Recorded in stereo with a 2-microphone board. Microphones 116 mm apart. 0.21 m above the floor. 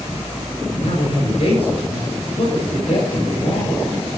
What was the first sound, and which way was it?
A man speaking, 60° left (ahead or behind).